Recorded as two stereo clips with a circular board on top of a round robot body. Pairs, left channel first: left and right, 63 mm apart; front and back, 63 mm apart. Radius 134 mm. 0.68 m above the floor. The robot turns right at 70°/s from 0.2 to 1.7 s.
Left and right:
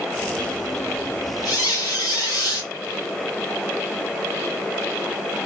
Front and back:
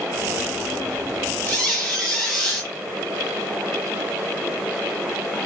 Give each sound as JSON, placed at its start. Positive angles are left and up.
{"t": 1.4, "sound": "a squeak", "azimuth_deg": 60, "distance_m": 1.6}